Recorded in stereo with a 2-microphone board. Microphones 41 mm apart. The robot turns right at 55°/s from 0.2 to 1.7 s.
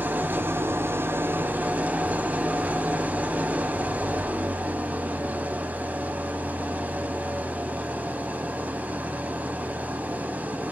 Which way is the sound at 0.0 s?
130° right.